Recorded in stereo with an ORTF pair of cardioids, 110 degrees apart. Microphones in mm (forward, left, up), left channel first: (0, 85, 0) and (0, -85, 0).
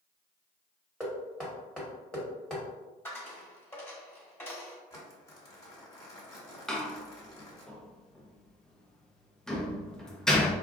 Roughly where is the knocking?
Ahead.